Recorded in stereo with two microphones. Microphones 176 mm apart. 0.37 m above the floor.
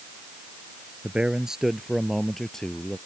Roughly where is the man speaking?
Centre.